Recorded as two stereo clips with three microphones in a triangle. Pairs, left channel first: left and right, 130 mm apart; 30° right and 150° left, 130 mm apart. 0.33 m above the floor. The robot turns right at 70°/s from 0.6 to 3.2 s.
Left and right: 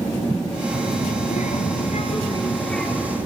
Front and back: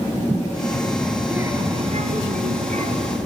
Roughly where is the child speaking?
Ahead left.